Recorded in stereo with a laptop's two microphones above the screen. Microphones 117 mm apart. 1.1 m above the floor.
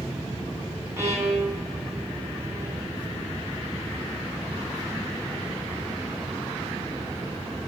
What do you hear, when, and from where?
1.0 s a violin: 25° right (ahead or behind), 9 m